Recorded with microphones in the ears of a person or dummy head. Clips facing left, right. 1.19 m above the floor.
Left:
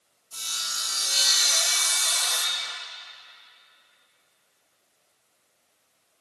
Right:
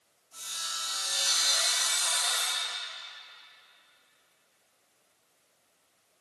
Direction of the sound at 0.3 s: 85° left.